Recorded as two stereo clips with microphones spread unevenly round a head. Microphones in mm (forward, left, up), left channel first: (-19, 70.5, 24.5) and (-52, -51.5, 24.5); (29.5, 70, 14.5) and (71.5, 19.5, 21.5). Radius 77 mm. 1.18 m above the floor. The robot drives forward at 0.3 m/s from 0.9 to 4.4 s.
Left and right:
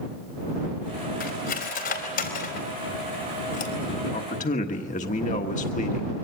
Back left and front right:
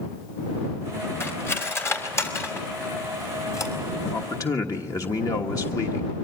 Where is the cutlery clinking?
80° left, 4 m; by 3.7 s 90° left, 4 m.